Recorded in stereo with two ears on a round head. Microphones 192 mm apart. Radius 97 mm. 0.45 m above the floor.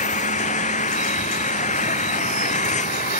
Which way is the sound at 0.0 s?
35° left (ahead or behind).